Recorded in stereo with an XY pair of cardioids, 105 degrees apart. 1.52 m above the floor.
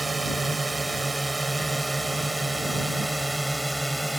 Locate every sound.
0.0 s a drone: 20° right; by 4.2 s 5° right